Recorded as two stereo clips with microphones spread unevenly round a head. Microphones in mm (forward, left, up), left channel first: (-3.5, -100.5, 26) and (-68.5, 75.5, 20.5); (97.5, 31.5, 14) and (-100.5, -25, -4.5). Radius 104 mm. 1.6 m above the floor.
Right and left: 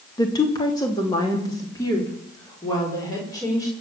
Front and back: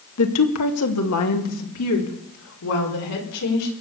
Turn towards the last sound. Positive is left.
turn(degrees=5)